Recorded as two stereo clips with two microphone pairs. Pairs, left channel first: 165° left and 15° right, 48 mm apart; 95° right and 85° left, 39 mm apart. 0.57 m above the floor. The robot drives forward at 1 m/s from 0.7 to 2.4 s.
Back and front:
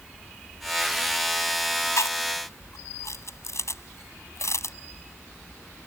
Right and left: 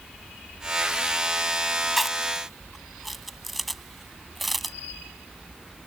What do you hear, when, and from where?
2.0 s chewing: 175° left